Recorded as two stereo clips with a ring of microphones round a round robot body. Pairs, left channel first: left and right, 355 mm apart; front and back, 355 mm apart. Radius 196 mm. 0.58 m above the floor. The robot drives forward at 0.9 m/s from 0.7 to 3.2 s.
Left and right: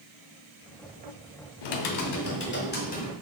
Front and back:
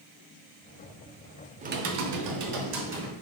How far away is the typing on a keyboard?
About 0.6 m.